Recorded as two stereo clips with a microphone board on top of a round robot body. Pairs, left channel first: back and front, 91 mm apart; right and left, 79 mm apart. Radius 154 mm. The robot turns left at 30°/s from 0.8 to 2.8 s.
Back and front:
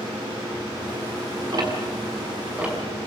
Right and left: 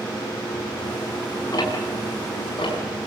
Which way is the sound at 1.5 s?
45° right.